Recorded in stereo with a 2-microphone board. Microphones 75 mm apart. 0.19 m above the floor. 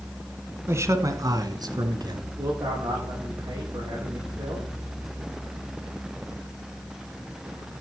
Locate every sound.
0.7 s a man speaking: 35° right (ahead or behind), 1.6 m; by 2.3 s 60° right (ahead or behind), 2.5 m
2.4 s a man speaking: 60° right (ahead or behind), 8 m